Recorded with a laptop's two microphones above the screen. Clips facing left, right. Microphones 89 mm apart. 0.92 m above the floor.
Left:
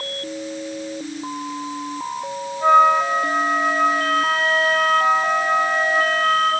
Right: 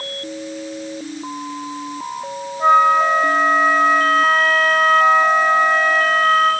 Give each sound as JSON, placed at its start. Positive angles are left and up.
{"t": 2.6, "sound": "a flute", "side_deg": -45, "distance_m": 7.0}